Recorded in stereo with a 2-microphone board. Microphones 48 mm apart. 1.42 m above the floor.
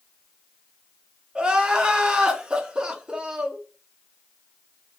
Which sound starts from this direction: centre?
Crying, at 1.4 s.